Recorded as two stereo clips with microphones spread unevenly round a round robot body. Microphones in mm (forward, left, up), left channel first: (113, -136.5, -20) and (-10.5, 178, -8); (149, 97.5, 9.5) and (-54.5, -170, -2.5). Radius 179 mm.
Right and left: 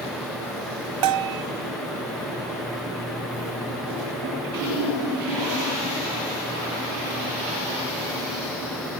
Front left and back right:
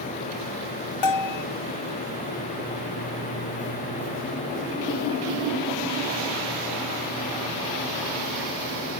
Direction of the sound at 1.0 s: 85° left.